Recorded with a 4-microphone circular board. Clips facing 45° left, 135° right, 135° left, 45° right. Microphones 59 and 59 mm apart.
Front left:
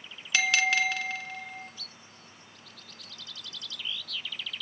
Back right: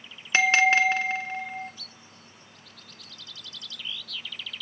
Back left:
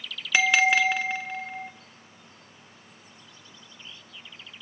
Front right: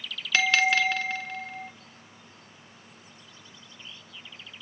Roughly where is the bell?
Behind.